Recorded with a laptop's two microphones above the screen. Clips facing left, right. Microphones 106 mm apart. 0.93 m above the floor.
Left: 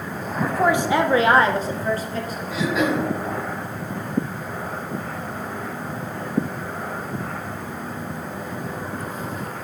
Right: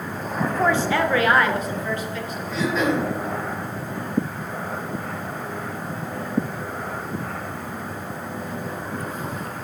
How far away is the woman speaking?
About 1.4 m.